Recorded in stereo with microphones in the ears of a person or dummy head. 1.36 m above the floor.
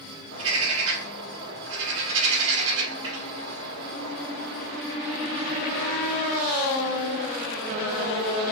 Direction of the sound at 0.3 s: 80° right.